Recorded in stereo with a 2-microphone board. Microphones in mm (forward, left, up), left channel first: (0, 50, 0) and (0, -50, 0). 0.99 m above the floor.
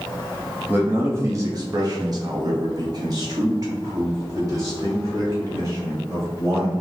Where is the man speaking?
20° right (ahead or behind), 0.8 m; by 6.7 s 30° right (ahead or behind), 3 m.